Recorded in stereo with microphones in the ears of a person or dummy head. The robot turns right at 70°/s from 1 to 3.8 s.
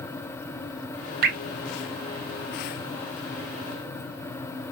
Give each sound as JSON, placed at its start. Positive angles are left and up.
{"t": 1.2, "sound": "dripping", "side_deg": -55, "distance_m": 1.0}